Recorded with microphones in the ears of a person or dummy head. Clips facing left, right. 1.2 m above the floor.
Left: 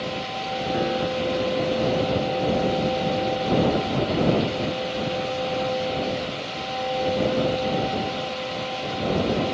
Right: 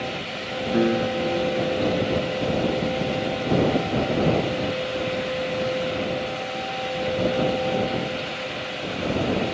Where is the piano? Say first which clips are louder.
Right 4 dB; 45° right (ahead or behind).